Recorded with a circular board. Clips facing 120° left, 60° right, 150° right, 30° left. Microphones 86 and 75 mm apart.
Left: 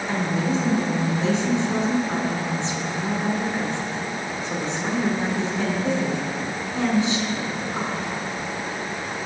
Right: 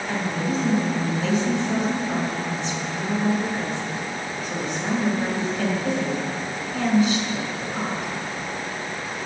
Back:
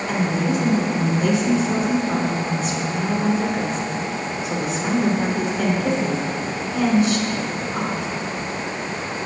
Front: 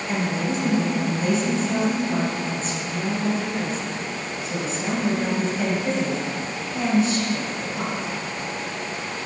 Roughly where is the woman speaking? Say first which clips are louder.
Left 2 dB, back 3 dB; behind.